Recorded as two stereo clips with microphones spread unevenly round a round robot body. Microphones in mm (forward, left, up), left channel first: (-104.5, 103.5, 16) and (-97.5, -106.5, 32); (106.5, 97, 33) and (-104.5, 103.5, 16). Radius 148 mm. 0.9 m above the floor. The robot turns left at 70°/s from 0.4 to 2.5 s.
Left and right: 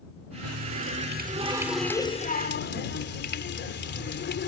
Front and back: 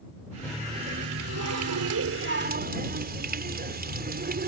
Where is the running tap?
85° right; by 4.5 s 130° left.